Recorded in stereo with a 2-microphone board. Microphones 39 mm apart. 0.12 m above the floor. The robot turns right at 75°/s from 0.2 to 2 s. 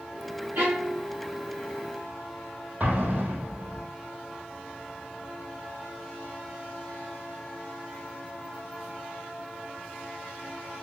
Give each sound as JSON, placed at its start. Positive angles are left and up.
{"t": 0.6, "sound": "a violin", "azimuth_deg": -95, "distance_m": 3.0}
{"t": 2.8, "sound": "an explosion", "side_deg": -45, "distance_m": 2.5}